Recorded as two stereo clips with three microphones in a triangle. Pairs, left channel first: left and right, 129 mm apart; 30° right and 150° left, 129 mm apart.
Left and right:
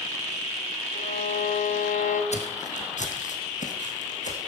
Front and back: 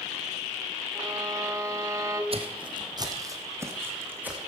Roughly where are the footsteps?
Left.